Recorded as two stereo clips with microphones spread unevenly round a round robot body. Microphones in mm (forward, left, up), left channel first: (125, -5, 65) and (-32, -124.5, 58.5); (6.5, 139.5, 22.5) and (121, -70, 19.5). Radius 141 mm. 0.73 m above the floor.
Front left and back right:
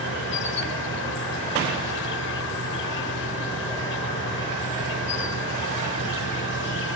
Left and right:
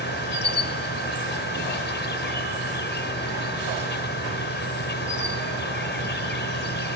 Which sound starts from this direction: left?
An insect, at 0.0 s.